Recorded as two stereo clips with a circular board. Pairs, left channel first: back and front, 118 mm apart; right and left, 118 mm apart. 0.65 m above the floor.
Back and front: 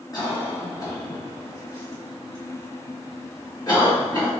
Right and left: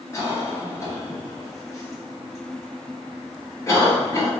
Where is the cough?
140° right, 1.5 m.